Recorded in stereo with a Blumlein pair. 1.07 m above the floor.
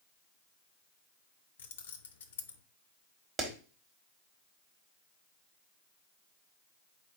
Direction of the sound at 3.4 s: 20° right.